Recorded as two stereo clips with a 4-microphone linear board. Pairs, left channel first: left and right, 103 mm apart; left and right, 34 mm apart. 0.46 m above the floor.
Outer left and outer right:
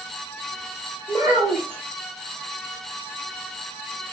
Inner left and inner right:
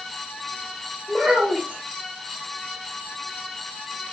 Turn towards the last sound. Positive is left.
turn(degrees=-30)  # may be behind; listen again after turning